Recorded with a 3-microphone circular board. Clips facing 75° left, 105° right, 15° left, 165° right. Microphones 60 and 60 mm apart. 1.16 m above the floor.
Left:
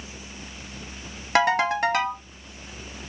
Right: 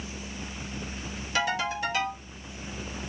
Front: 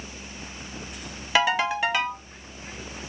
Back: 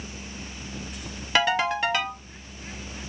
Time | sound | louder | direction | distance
1.4 | a ringtone | left 8 dB, front 1 dB | 105° left | 0.9 m